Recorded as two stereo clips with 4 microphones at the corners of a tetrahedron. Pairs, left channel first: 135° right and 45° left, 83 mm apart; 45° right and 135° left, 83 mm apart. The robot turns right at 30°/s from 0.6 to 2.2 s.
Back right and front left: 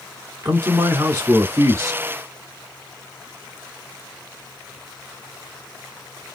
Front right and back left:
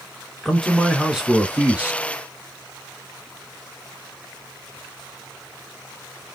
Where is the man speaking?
40° left, 1.0 m; by 2.0 s 85° left, 1.0 m.